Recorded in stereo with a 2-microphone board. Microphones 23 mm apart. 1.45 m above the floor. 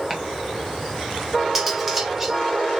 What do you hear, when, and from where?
0.1 s chopping: 20° right (ahead or behind), 2.5 m
1.6 s cutlery clinking: 10° right (ahead or behind), 2.0 m